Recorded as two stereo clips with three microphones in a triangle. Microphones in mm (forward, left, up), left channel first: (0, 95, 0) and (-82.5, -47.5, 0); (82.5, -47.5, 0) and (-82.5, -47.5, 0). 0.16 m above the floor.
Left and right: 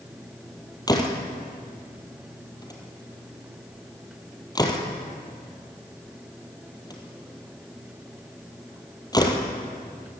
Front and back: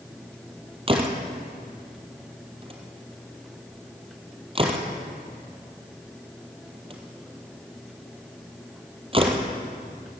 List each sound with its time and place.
0.9 s a door slam: 125° left, 3 m